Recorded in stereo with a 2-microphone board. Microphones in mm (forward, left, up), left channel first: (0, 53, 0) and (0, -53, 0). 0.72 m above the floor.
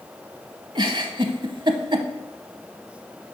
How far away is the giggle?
About 0.8 m.